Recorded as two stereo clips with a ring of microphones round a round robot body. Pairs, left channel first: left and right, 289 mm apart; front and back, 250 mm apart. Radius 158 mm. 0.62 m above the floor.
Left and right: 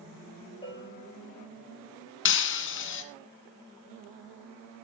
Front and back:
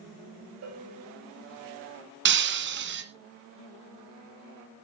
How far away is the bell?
About 9 m.